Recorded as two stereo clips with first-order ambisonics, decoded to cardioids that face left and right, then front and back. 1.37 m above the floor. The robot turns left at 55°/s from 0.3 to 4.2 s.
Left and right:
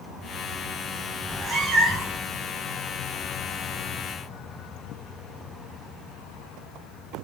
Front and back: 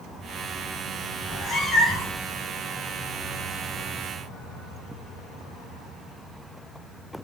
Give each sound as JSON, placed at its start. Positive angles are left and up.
{"t": 1.2, "sound": "a cat meowing", "azimuth_deg": -35, "distance_m": 0.5}